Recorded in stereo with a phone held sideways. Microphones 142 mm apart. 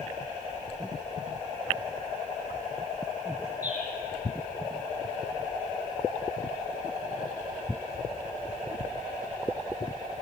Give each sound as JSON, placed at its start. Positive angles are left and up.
{"t": 3.6, "sound": "a bird", "side_deg": -60, "distance_m": 5.0}